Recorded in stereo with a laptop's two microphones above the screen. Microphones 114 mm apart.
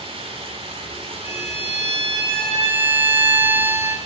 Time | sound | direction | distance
0.0 | running water | 60° right (ahead or behind) | 3 m
1.2 | a violin | 20° right (ahead or behind) | 4.5 m